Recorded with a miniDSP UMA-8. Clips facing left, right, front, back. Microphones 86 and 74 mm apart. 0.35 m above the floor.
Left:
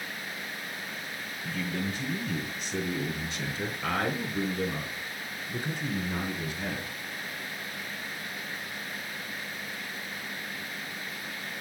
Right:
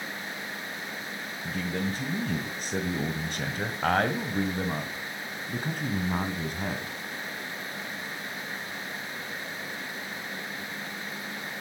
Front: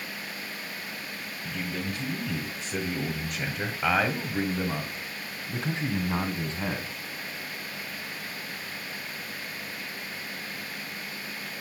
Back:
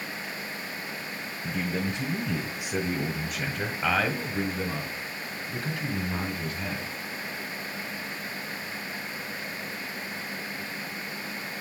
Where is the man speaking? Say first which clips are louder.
Right 2 dB, back 4 dB; 135° right, 1.7 m; by 6.9 s 55° right, 3 m.